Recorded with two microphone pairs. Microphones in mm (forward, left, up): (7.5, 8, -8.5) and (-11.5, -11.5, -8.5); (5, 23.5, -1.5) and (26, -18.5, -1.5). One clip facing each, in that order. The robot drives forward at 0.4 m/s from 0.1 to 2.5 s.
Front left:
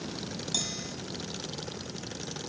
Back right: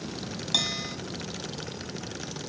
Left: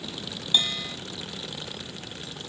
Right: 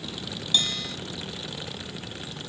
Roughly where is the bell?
Behind.